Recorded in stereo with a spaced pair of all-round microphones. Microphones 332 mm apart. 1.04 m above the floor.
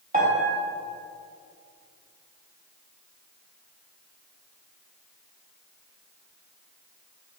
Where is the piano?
25° right (ahead or behind), 1.0 m.